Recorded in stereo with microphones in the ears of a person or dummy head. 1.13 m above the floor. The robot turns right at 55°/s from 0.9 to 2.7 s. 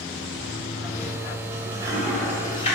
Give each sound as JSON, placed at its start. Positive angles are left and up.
{"t": 0.4, "sound": "a toilet flushing", "side_deg": -65, "distance_m": 3.5}